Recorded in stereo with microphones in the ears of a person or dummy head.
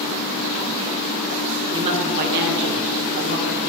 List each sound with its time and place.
1.7 s a woman speaking: 30° right (ahead or behind), 0.9 m; by 3.6 s 55° right (ahead or behind), 1.3 m